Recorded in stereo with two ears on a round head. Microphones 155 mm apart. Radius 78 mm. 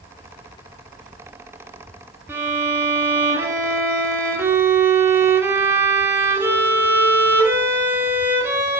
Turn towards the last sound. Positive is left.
turn(degrees=-15)  # may be behind; listen again after turning